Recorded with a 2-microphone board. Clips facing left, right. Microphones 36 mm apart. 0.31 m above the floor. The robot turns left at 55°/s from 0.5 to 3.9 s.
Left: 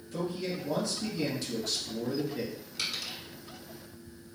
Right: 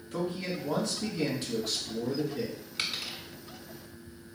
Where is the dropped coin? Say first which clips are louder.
Right 1 dB; 40° right (ahead or behind), 1.2 m; by 3.2 s 15° right (ahead or behind), 1.2 m.